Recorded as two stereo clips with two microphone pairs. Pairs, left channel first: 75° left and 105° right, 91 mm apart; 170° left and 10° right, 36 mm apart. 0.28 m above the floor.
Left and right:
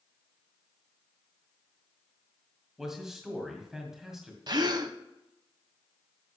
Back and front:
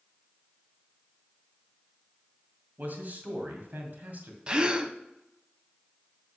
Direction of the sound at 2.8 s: 20° right.